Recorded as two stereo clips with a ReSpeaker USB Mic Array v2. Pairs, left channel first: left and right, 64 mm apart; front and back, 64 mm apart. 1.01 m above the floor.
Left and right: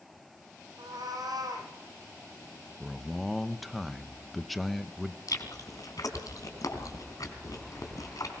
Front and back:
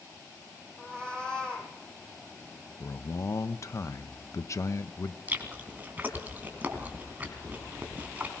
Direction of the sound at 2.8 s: Straight ahead.